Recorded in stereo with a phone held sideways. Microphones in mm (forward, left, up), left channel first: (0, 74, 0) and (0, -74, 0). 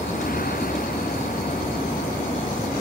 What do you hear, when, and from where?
0.0 s a vehicle: 75° left (ahead or behind)